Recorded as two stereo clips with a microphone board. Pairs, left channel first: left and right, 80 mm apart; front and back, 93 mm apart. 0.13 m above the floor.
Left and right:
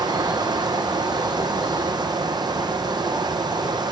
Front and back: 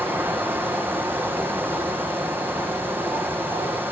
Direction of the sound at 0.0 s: 115° right.